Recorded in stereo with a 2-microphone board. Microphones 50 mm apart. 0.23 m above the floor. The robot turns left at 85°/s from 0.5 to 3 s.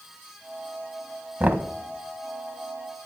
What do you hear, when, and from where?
1.4 s knocking: 35° right (ahead or behind), 1.0 m